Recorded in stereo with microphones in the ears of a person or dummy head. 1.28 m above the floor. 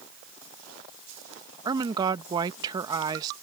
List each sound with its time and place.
1.6 s a woman speaking: 25° right (ahead or behind)